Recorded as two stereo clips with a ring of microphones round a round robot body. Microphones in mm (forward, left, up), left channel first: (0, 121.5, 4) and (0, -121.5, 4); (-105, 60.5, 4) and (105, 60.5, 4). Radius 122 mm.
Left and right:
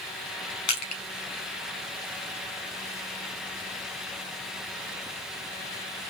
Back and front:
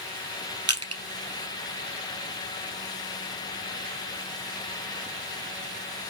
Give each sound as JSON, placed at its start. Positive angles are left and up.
{"t": 0.7, "sound": "crushing", "azimuth_deg": 70, "distance_m": 3.0}